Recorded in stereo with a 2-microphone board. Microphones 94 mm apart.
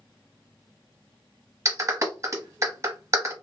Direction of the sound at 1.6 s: 35° right (ahead or behind).